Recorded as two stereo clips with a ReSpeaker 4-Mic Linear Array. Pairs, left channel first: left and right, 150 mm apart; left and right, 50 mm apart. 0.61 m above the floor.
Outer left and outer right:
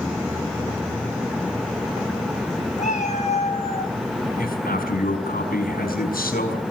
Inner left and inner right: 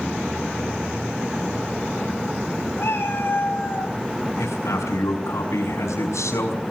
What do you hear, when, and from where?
2.8 s a cat meowing: 50° left (ahead or behind), 4 m; by 3.9 s 35° left (ahead or behind), 3.5 m
4.4 s a man speaking: 75° left (ahead or behind), 5 m